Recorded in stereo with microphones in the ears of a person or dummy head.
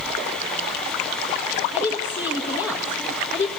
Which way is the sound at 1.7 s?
10° left (ahead or behind).